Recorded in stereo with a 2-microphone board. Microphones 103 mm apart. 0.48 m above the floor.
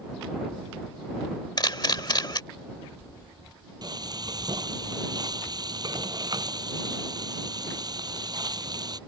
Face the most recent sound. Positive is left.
turn(degrees=-40)  # may be behind; listen again after turning